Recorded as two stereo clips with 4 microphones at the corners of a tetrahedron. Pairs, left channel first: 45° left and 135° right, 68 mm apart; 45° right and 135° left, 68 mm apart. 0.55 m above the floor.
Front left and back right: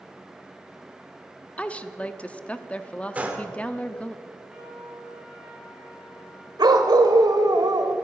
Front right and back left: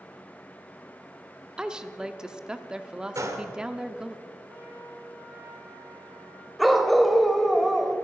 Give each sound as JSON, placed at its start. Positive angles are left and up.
{"t": 1.6, "sound": "a woman speaking", "azimuth_deg": 75, "distance_m": 0.7}
{"t": 3.1, "sound": "a gunshot", "azimuth_deg": 160, "distance_m": 1.6}
{"t": 4.5, "sound": "a trumpet", "azimuth_deg": 150, "distance_m": 4.0}
{"t": 6.6, "sound": "a dog barking", "azimuth_deg": -135, "distance_m": 1.1}